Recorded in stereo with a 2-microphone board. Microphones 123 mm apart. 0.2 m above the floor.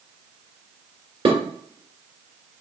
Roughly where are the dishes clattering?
Right.